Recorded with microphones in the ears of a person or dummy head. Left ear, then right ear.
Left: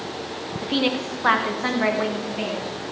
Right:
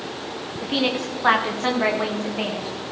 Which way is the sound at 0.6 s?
5° left (ahead or behind).